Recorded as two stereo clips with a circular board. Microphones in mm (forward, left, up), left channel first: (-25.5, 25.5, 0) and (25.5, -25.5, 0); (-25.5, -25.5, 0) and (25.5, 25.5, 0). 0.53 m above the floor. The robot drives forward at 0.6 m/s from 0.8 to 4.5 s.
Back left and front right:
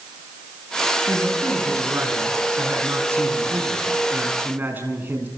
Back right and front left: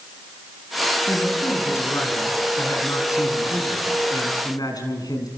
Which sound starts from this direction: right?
A man speaking, at 1.1 s.